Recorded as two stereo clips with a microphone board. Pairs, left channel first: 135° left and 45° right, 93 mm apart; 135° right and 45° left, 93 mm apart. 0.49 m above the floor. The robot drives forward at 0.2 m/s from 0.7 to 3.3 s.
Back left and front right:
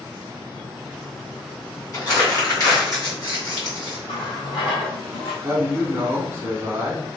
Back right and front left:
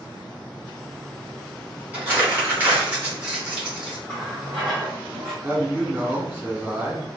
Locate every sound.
1.9 s crumpling: 105° left, 1.5 m; by 4.0 s 120° left, 1.6 m
4.1 s a running tap: 145° left, 1.5 m
5.4 s a man speaking: 15° right, 1.0 m